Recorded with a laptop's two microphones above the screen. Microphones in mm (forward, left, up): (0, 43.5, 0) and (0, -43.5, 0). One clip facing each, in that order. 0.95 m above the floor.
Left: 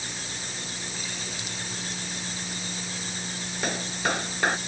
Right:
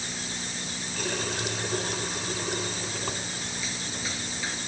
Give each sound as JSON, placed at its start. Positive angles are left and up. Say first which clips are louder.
{"t": 1.0, "sound": "a running tap", "louder": "right 6 dB", "side_deg": -85}
{"t": 3.6, "sound": "a clap", "louder": "left 7 dB", "side_deg": 70}